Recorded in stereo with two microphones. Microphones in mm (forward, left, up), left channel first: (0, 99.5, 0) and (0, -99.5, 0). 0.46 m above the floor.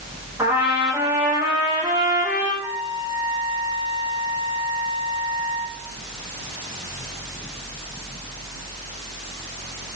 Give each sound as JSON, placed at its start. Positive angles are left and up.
{"t": 0.4, "sound": "a trumpet", "side_deg": -10, "distance_m": 10.0}
{"t": 2.6, "sound": "a trumpet", "side_deg": -10, "distance_m": 6.5}